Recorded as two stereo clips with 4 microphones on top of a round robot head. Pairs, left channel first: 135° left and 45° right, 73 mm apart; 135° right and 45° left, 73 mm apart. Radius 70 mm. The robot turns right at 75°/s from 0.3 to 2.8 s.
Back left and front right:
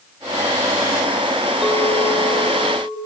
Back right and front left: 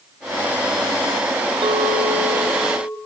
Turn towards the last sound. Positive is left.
turn(degrees=130)